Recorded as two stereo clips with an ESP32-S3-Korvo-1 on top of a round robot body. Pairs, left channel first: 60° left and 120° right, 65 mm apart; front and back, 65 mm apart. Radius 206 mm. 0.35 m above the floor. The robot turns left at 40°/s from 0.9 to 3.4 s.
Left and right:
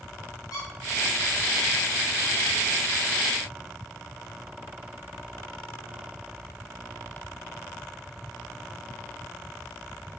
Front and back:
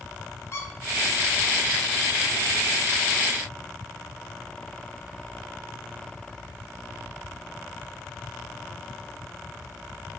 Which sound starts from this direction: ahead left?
A squeak, at 0.5 s.